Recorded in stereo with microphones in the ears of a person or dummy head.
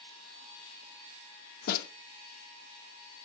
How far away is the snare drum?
About 0.9 m.